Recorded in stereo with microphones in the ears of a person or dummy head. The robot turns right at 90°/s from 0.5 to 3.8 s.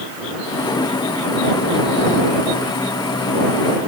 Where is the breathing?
I don't hear breathing.